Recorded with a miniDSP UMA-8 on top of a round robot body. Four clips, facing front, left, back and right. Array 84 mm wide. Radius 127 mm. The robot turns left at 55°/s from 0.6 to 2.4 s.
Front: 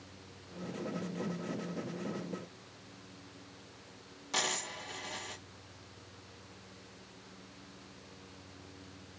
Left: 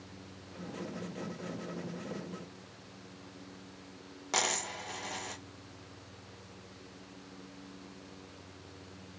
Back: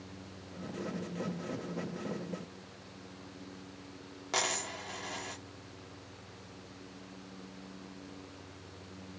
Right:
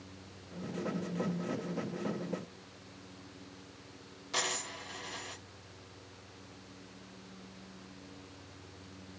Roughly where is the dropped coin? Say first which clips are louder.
Left 3 dB, back 2 dB; behind left.